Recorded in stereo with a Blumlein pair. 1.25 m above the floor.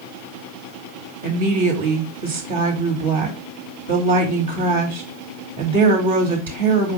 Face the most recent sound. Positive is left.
turn(degrees=-60)